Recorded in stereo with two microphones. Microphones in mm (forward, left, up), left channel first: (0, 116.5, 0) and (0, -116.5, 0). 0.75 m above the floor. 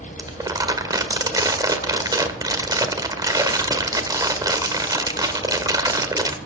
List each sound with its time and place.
0.2 s crumpling: 15° right (ahead or behind), 1.5 m